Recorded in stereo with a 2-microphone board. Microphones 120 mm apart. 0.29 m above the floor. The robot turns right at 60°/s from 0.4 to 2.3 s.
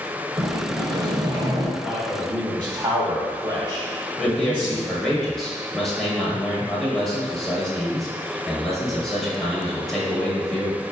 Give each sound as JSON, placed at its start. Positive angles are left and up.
{"t": 0.4, "sound": "a sliding door", "azimuth_deg": -125, "distance_m": 0.5}
{"t": 1.8, "sound": "a man speaking", "side_deg": -10, "distance_m": 1.2}
{"t": 4.2, "sound": "a man speaking", "side_deg": 5, "distance_m": 1.0}